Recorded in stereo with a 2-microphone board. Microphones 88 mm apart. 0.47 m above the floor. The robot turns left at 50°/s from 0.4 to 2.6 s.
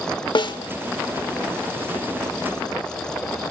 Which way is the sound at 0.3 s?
55° left (ahead or behind).